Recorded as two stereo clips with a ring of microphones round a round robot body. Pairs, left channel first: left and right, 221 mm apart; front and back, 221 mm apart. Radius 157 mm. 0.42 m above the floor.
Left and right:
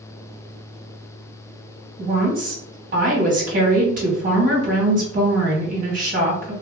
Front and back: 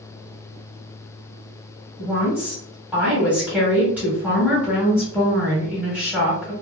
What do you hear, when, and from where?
2.0 s a woman speaking: 100° right, 1.1 m